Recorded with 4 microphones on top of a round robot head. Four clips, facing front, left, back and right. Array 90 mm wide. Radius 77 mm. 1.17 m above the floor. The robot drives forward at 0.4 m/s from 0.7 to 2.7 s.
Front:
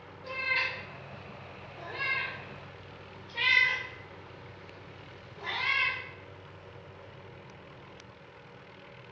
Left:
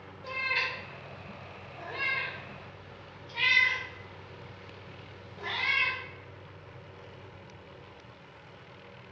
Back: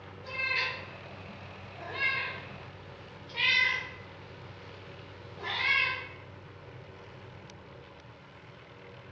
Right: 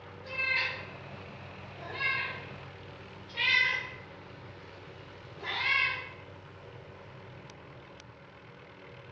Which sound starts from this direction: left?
A cat meowing, at 0.2 s.